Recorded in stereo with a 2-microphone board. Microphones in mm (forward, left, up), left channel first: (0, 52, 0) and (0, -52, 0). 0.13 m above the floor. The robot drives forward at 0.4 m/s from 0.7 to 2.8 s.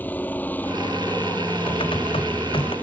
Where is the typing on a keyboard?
55° left (ahead or behind).